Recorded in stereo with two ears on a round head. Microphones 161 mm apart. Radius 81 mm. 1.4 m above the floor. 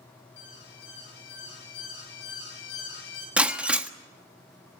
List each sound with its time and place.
0.4 s an alarm: 65° left (ahead or behind), 8.5 m
3.4 s breaking glass: 10° right (ahead or behind), 1.4 m